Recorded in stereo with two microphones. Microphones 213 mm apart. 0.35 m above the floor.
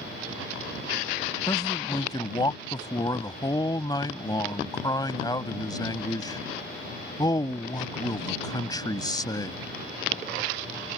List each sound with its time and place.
1.5 s a man speaking: 20° left (ahead or behind)